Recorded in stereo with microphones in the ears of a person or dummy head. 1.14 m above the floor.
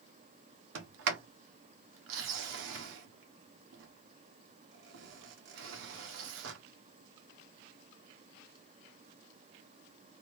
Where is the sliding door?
65° right (ahead or behind), 0.9 m.